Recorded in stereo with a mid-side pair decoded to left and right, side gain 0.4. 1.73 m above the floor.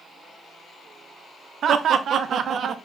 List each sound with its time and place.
1.6 s laughter: 65° right, 0.6 m